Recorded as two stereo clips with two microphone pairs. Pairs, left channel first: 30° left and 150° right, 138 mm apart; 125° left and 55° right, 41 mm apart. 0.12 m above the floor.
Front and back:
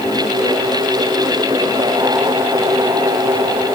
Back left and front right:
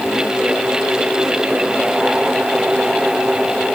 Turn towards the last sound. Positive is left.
No sound to turn to.